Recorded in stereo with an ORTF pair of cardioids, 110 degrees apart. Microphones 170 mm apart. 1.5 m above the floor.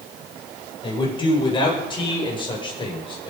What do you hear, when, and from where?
0.8 s a man speaking: 30° left, 8.5 m